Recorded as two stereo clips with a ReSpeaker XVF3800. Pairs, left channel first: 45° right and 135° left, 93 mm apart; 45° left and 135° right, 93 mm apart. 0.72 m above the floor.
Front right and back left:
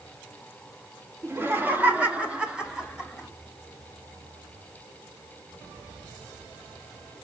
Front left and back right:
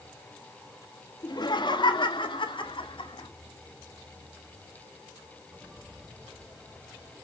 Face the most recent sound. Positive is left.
turn(degrees=45)